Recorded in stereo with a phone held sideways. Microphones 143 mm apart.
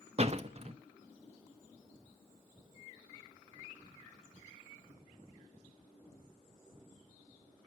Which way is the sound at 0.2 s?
45° right (ahead or behind).